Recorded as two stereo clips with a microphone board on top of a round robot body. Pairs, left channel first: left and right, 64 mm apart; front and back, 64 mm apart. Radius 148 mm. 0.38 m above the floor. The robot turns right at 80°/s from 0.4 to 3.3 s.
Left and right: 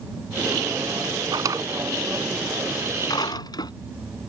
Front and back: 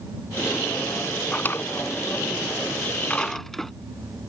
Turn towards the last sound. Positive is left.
turn(degrees=85)